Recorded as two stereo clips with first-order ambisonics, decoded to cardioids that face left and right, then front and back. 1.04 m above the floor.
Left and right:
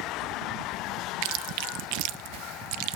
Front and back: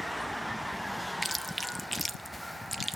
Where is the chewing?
85° right, 0.6 m.